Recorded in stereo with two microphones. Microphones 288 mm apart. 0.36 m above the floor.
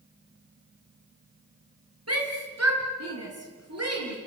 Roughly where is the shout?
Right.